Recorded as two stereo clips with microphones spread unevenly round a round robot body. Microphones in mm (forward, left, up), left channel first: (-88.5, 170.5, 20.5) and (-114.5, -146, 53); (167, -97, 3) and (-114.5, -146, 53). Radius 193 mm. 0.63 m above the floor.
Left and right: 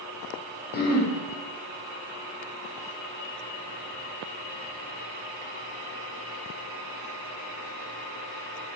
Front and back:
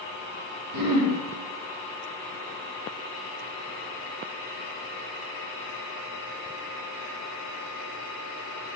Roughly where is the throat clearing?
Behind left.